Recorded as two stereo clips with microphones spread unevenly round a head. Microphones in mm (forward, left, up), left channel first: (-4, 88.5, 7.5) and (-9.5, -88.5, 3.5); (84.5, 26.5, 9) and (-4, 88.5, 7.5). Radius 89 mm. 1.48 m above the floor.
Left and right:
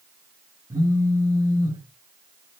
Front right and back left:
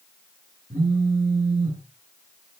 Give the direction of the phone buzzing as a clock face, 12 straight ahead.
5 o'clock.